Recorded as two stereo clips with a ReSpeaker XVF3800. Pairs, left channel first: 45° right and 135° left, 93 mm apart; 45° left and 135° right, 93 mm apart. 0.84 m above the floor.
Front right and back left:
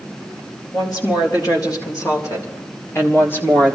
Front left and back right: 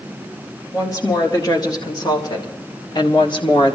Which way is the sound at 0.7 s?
5° right.